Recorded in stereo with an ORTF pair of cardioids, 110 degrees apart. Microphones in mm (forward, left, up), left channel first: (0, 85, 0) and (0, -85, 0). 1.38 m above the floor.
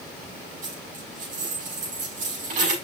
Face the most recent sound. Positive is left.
turn(degrees=-50)